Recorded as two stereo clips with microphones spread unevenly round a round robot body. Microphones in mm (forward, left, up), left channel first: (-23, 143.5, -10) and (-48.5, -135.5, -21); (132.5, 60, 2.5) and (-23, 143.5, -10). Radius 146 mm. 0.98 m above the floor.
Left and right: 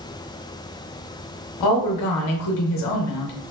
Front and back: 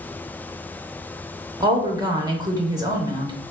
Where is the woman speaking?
90° left, 0.6 m.